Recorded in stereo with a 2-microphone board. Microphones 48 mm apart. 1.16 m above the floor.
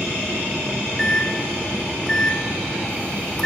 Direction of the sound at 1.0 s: 10° left (ahead or behind).